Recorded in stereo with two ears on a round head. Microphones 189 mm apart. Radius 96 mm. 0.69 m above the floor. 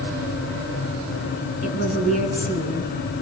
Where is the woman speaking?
40° left (ahead or behind), 8.5 m.